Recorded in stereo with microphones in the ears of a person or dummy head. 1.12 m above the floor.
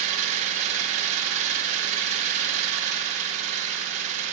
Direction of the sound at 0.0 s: 40° right (ahead or behind).